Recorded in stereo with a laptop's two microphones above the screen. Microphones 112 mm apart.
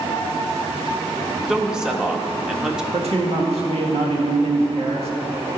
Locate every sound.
1.5 s a man speaking: 5° right (ahead or behind), 0.9 m
2.9 s a man speaking: 65° right (ahead or behind), 1.5 m